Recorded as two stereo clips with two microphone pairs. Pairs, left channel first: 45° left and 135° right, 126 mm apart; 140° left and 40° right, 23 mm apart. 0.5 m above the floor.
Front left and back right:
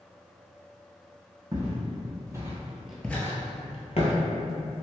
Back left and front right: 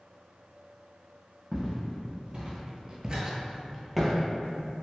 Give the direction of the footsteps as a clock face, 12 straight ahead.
3 o'clock.